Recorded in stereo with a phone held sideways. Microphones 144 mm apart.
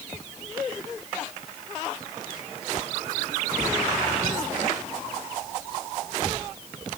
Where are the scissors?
I don't hear scissors.